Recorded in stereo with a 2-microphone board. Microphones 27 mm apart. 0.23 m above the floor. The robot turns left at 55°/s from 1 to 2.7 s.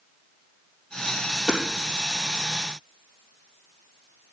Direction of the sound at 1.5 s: 10° left (ahead or behind).